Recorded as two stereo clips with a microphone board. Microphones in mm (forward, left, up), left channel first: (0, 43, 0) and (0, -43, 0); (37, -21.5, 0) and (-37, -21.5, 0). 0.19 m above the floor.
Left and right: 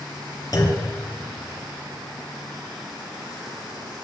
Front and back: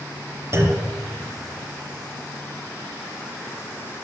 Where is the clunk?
130° left, 3 m.